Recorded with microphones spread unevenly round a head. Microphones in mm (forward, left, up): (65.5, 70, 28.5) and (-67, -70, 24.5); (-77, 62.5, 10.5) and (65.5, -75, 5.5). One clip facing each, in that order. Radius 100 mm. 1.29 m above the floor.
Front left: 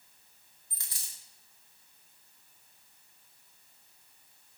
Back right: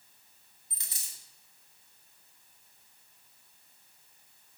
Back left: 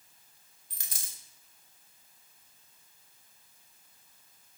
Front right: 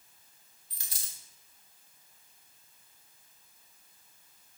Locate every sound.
0.7 s a dropped coin: 160° left, 1.0 m